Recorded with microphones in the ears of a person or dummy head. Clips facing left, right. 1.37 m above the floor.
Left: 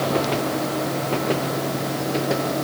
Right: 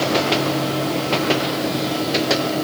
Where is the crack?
I don't hear a crack.